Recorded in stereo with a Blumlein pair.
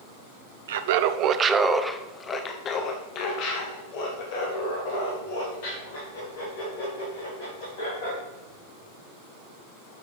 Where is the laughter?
60° right, 0.8 m; by 8.2 s 60° left, 4 m.